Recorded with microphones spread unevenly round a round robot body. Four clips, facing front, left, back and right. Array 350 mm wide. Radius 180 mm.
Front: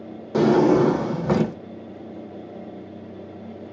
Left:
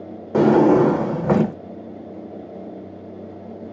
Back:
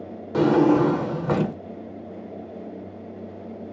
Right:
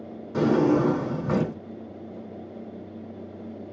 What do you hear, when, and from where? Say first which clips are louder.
0.3 s a drawer: left 7 dB, front 1 dB; 80° left, 0.5 m